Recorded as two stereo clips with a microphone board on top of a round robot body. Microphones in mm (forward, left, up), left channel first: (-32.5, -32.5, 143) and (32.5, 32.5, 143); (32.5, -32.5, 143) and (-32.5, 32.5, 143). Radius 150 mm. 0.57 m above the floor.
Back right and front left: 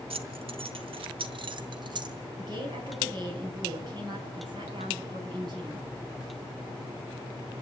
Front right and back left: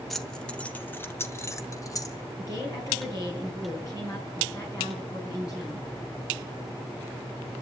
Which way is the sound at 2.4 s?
5° left.